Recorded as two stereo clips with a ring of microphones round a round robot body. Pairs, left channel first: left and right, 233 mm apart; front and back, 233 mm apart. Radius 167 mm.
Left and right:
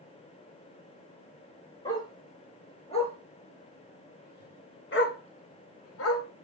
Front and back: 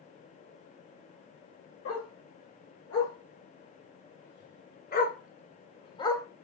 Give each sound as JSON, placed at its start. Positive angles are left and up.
{"t": 1.9, "sound": "a dog barking", "azimuth_deg": 15, "distance_m": 2.5}